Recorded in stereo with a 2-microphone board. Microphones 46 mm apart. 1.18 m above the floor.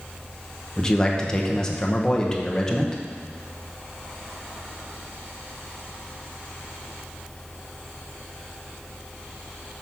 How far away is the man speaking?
About 1.2 m.